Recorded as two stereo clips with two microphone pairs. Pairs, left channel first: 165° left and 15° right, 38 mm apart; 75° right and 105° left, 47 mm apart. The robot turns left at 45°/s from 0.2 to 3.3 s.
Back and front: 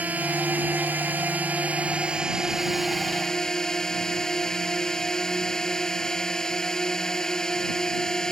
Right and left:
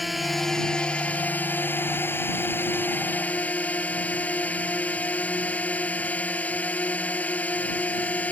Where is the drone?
15° left; by 8.3 s 125° right.